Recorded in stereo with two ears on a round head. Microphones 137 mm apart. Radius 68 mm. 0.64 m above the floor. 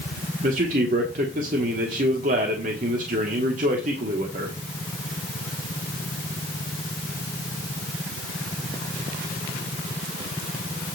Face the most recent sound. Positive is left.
turn(degrees=-55)  # may be behind; listen again after turning